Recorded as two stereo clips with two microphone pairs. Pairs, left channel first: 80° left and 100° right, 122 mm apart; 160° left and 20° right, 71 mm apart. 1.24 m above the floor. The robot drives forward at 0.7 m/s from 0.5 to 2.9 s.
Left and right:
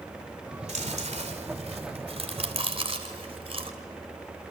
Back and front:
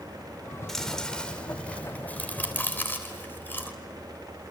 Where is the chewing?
115° right, 3 m; by 3.7 s 135° right, 4 m.